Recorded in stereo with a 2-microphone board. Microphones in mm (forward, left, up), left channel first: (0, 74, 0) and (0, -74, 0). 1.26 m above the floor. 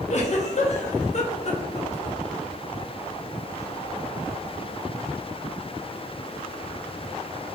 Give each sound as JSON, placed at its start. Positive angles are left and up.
{"t": 0.1, "sound": "a giggle", "side_deg": 50, "distance_m": 0.8}